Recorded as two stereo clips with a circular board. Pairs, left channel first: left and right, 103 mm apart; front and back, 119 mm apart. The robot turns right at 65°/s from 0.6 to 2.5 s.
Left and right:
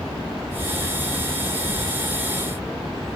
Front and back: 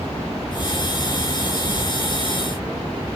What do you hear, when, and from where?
1.7 s tearing paper: 160° left, 5.5 m; by 1.8 s 170° left, 5.5 m